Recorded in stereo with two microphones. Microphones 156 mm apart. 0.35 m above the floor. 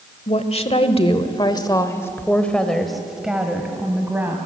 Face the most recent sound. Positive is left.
turn(degrees=-15)  # may be behind; listen again after turning